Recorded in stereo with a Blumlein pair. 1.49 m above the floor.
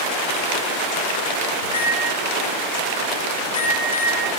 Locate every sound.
1.6 s a microwave: 70° left, 0.7 m